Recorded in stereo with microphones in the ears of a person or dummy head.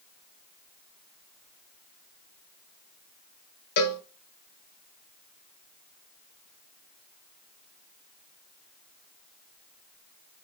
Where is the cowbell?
55° left (ahead or behind), 0.9 m.